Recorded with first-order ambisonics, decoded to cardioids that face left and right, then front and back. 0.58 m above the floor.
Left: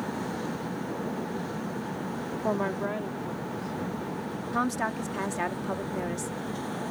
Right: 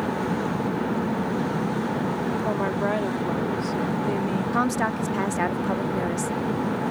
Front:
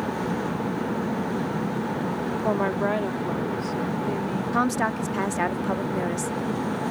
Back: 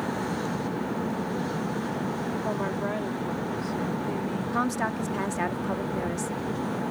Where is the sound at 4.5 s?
50° right.